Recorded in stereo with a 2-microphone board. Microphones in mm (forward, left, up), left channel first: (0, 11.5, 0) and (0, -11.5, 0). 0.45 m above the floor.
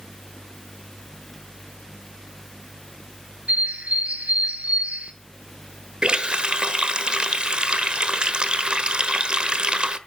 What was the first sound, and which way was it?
A bird, 85° right.